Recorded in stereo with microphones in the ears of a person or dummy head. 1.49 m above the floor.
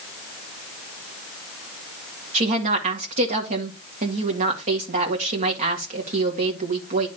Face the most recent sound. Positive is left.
turn(degrees=-45)  # may be behind; listen again after turning